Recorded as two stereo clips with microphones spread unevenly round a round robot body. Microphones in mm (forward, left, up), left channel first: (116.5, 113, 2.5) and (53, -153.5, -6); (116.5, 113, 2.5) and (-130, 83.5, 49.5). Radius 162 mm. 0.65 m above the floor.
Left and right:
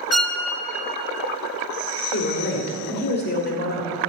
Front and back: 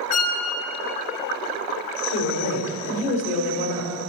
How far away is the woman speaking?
About 1.9 m.